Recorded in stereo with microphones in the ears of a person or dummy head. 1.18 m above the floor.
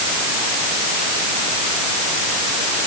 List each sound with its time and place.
Only background noise.